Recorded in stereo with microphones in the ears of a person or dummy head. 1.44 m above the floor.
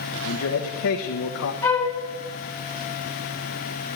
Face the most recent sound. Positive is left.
turn(degrees=10)  # may be behind; listen again after turning